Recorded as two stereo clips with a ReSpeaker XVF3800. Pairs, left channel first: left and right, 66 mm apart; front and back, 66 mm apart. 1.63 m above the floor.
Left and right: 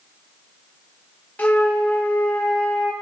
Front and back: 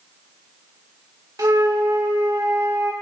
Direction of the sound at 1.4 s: 155° left.